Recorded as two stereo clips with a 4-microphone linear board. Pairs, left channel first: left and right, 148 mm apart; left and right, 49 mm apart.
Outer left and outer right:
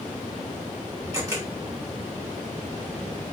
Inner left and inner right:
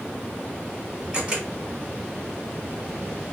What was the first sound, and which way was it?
A camera shutter, 25° right (ahead or behind).